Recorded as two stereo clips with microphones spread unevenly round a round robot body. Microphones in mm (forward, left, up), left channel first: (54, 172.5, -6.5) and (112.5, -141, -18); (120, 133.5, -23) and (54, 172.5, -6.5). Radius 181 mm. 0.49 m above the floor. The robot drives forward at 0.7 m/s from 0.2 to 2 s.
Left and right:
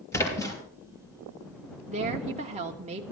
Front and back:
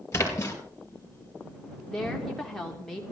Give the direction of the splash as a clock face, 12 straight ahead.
11 o'clock.